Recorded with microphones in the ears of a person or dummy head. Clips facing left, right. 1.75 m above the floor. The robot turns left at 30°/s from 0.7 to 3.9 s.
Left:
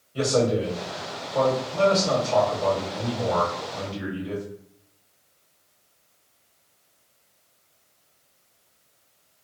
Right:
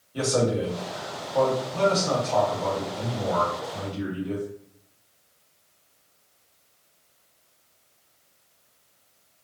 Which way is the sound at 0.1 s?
145° right.